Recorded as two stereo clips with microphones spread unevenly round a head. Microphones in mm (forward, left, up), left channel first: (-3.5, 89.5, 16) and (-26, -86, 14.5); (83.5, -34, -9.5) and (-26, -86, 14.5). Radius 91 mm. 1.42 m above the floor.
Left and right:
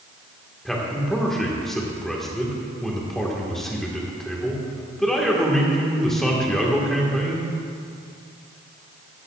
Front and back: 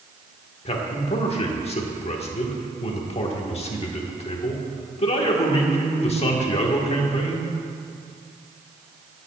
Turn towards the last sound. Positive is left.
turn(degrees=-5)